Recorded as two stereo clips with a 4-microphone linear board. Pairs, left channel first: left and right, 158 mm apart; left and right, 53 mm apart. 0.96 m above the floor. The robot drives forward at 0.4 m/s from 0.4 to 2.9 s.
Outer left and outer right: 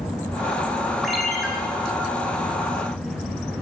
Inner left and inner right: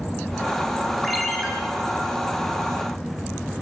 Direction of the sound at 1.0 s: Centre (ahead or behind).